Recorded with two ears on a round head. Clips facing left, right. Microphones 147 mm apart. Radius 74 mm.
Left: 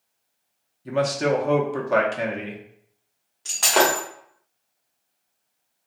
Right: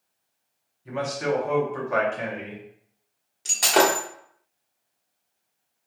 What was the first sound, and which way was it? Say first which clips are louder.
A man speaking: left 5 dB; 40° left (ahead or behind).